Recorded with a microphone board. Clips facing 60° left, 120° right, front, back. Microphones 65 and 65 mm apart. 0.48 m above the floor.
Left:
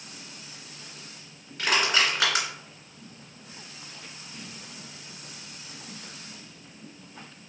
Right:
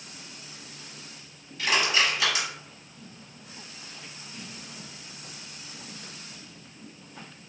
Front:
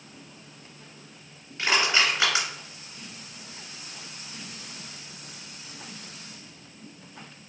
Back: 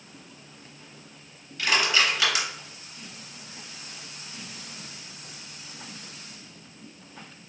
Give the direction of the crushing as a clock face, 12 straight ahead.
10 o'clock.